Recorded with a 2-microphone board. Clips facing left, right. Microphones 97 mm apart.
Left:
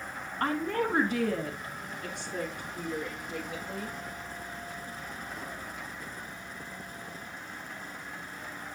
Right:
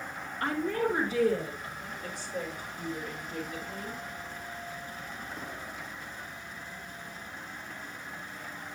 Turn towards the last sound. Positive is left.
turn(degrees=70)  # may be behind; listen again after turning